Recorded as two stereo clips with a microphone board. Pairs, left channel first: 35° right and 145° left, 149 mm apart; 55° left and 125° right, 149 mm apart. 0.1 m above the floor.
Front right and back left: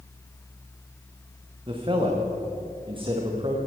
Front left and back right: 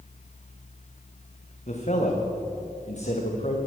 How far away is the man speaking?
About 5 m.